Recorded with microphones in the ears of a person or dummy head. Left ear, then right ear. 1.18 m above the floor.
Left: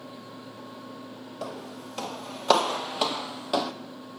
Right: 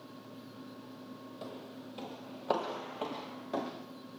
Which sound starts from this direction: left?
Footsteps, at 1.4 s.